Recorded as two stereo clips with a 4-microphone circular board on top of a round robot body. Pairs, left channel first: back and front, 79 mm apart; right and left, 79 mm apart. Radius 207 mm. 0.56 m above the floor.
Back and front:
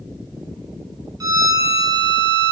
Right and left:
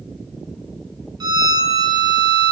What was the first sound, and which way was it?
A violin, 45° left.